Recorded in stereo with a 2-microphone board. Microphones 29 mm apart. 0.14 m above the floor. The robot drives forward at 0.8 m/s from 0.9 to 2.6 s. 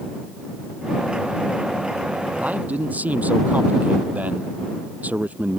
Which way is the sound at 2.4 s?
75° right (ahead or behind).